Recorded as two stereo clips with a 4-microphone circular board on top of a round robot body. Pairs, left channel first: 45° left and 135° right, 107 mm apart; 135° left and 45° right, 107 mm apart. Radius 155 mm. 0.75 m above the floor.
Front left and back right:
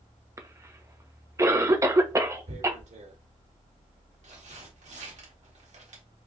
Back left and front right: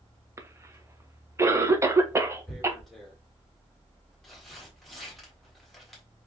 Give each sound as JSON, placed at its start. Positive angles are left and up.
{"t": 0.4, "sound": "a cough", "azimuth_deg": -90, "distance_m": 1.0}
{"t": 2.5, "sound": "tearing paper", "azimuth_deg": -135, "distance_m": 1.4}